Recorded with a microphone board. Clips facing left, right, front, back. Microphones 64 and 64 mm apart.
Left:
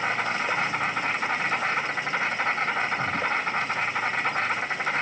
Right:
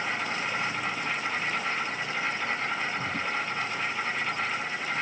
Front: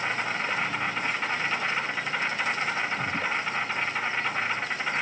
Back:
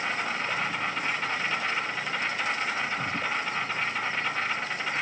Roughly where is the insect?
Left.